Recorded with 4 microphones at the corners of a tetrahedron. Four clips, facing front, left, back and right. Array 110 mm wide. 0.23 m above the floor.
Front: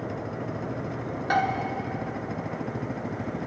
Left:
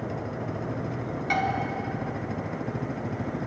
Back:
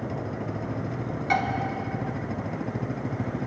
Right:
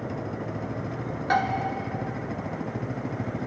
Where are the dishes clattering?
45° right, 1.7 m.